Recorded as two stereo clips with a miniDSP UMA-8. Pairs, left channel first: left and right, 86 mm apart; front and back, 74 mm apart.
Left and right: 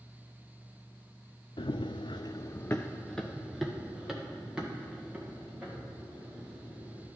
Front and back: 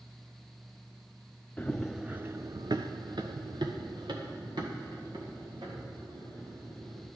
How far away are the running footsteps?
About 0.6 m.